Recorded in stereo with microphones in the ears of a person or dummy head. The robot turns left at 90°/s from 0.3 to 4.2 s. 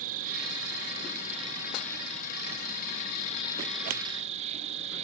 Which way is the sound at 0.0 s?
45° right.